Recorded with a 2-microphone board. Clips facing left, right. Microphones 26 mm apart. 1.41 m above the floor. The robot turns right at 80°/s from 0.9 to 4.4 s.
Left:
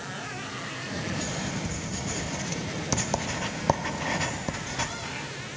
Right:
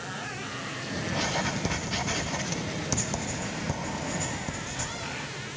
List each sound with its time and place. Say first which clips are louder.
1.1 s writing: right 6 dB; 50° right (ahead or behind), 0.5 m; by 5.0 s 35° left (ahead or behind), 0.5 m